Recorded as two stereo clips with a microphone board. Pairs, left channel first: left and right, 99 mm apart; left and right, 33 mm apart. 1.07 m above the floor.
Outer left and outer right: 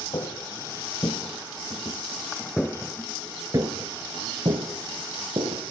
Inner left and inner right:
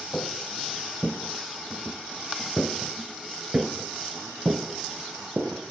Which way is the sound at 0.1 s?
50° left (ahead or behind).